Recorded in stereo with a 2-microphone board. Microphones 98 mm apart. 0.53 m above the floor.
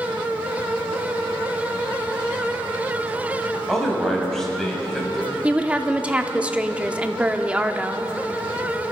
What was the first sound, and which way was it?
A man speaking, 5° left (ahead or behind).